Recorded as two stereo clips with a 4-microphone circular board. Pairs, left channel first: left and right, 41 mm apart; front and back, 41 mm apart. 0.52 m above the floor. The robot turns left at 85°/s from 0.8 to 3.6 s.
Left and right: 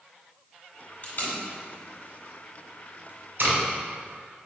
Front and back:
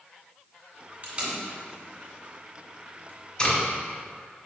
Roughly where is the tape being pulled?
Behind left.